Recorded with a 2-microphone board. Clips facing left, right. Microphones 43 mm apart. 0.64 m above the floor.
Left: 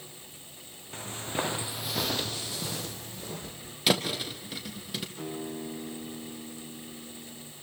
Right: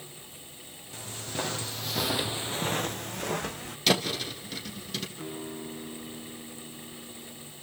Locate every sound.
0.9 s footsteps: 35° left (ahead or behind), 1.8 m; by 3.8 s 70° right (ahead or behind), 1.8 m
3.9 s a thud: 10° left (ahead or behind), 2.5 m
5.2 s a guitar: 50° left (ahead or behind), 9.5 m